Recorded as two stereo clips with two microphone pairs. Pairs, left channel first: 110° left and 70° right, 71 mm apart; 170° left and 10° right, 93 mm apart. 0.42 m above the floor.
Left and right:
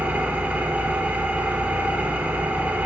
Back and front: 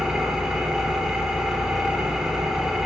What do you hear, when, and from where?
0.0 s an engine running: 80° right, 0.7 m